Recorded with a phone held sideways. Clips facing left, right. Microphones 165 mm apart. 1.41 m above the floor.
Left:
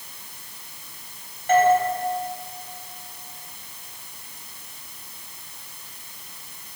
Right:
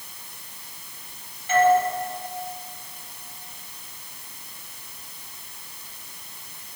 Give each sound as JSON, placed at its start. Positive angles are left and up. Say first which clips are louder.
{"t": 1.5, "sound": "a doorbell", "louder": "left 1 dB", "side_deg": 50, "distance_m": 10.0}